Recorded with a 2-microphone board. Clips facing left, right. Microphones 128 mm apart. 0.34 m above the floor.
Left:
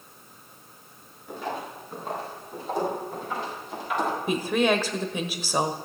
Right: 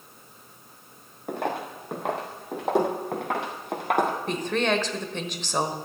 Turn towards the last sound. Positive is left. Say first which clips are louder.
# left 2 dB
turn(degrees=10)  # may be behind; listen again after turning